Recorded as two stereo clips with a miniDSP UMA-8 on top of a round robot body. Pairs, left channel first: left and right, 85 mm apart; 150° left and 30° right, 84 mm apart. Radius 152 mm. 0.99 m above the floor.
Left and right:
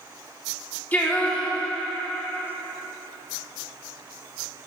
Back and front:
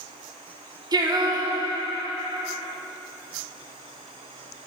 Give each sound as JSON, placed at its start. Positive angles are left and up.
{"t": 0.9, "sound": "singing", "azimuth_deg": 15, "distance_m": 0.9}